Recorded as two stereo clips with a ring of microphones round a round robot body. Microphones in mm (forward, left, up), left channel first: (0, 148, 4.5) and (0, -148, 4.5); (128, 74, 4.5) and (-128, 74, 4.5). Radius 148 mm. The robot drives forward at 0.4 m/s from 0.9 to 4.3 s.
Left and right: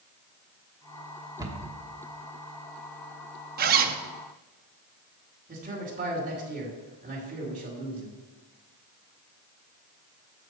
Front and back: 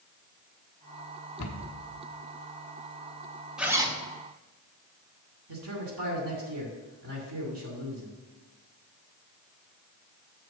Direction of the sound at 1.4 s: 10° right.